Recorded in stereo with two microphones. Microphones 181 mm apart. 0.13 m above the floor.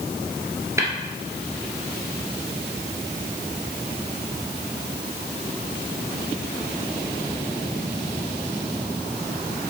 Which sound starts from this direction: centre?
Tapping, at 0.8 s.